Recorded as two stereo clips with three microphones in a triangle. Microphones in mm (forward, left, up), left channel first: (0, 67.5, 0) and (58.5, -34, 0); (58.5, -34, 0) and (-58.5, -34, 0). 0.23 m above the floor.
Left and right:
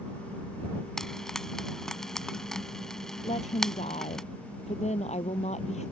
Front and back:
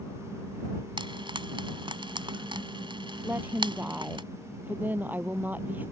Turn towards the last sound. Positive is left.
turn(degrees=105)